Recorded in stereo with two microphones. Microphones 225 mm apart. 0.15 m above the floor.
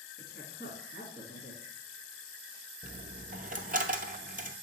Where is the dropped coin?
40° right (ahead or behind), 0.6 m.